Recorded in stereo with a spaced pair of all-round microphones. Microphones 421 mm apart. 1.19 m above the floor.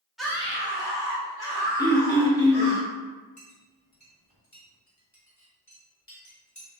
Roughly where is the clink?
Left.